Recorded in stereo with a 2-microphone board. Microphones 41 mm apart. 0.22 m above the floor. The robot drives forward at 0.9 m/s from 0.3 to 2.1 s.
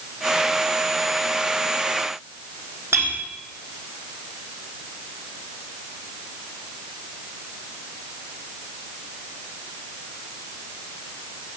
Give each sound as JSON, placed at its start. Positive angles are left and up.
{"t": 2.9, "sound": "a clink", "side_deg": -80, "distance_m": 5.0}